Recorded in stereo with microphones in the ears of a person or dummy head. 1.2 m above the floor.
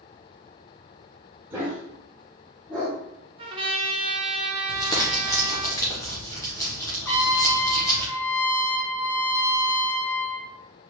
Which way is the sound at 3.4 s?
30° right (ahead or behind).